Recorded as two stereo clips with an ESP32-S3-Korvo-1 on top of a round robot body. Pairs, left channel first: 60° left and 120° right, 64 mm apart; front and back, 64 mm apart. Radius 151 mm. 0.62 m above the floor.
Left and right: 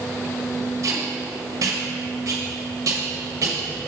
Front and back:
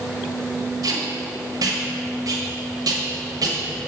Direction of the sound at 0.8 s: 155° right.